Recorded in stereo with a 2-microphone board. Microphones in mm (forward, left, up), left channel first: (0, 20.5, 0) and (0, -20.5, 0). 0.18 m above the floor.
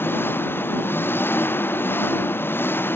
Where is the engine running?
60° left (ahead or behind).